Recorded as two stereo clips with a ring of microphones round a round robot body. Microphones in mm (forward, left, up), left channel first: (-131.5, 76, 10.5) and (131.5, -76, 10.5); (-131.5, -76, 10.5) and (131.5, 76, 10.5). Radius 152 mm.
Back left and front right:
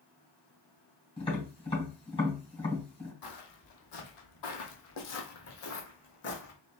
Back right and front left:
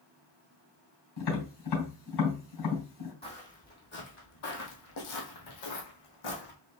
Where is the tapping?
135° right, 3.5 m.